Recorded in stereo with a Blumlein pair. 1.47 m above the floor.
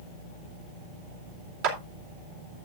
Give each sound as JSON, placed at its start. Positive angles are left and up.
{"t": 1.6, "sound": "a clap", "azimuth_deg": -45, "distance_m": 2.5}